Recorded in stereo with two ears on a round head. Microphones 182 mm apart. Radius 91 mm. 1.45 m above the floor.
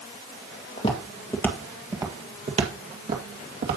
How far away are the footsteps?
About 1.6 m.